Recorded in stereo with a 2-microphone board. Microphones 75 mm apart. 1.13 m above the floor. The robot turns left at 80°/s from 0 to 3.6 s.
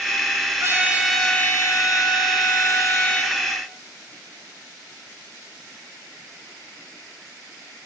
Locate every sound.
0.6 s a trumpet: 140° right, 8 m; by 3.4 s straight ahead, 8 m